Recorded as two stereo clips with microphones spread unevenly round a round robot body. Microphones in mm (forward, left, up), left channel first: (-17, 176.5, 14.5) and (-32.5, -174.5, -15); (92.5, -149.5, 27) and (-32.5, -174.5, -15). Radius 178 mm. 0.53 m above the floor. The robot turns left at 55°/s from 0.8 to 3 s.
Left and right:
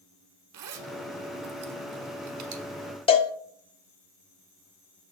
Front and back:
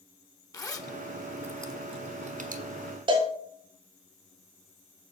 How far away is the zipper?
About 1.2 m.